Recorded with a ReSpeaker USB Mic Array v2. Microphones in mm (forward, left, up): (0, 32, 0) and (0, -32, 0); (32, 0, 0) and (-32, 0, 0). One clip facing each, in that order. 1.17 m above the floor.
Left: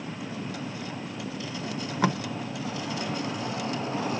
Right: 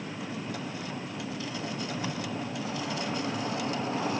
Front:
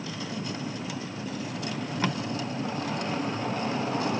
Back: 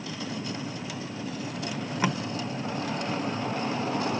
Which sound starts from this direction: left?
Tape being pulled, at 1.7 s.